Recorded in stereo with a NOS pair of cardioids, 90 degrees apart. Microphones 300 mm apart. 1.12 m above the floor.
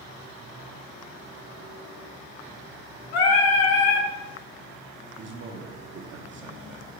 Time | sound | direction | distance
3.1 | singing | 60° left | 0.9 m
5.2 | a man speaking | 40° right | 0.6 m